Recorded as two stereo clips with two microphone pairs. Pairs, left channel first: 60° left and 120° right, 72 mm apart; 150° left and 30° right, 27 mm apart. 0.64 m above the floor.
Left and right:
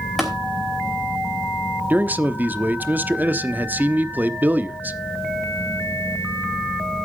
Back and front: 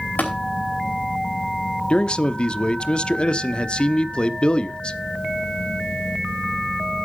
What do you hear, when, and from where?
0.2 s tapping: 150° left, 4.5 m
1.9 s a man speaking: 175° right, 0.9 m